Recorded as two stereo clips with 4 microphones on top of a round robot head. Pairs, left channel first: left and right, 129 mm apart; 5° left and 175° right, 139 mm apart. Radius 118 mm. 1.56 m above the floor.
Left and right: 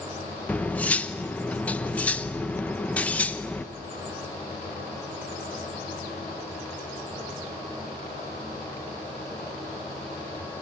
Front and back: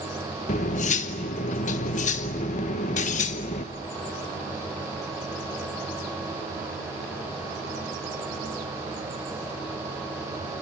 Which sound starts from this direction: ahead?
Cutlery clinking, at 0.5 s.